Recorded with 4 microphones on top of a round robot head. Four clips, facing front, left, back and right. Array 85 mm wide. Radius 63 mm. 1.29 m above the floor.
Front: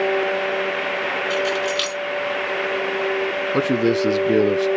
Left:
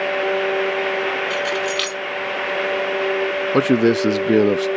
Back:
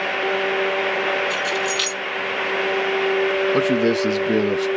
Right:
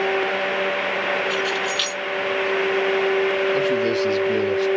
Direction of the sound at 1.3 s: 65° left.